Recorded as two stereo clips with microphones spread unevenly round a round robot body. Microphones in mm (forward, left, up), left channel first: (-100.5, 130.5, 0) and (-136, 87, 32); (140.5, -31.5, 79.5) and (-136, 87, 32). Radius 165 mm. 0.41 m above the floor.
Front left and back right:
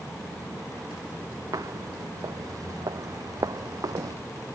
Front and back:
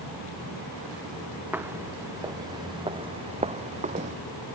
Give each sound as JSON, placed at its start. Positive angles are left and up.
{"t": 1.5, "sound": "footsteps", "azimuth_deg": -120}